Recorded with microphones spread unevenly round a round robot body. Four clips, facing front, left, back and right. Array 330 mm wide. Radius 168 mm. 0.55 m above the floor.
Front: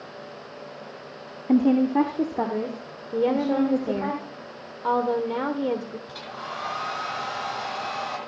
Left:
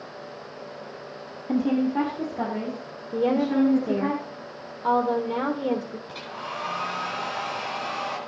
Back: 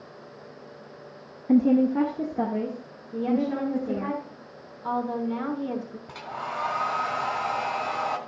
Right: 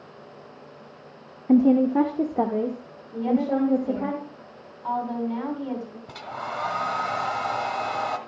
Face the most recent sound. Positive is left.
turn(degrees=-90)